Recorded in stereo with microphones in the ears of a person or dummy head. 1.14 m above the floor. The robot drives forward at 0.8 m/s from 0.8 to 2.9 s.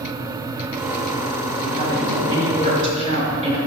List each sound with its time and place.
1.6 s a woman speaking: 30° right (ahead or behind), 3 m; by 3.6 s 45° right (ahead or behind), 2 m